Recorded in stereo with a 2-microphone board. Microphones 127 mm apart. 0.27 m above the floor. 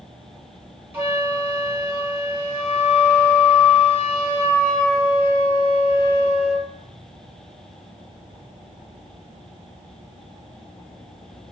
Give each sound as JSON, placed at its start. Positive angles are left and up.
{"t": 0.9, "sound": "a flute", "side_deg": -15, "distance_m": 1.5}